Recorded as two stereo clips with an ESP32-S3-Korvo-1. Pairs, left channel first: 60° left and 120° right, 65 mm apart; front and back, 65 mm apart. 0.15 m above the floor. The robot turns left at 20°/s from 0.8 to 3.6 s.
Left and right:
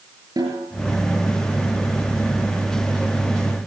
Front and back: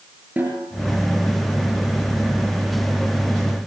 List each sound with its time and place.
0.4 s a snare drum: 115° right, 8.5 m